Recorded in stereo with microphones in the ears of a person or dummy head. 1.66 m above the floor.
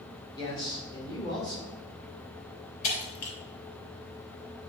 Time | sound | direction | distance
0.4 | a man speaking | 25° left (ahead or behind) | 2.5 m
2.8 | breaking glass | 45° left (ahead or behind) | 3 m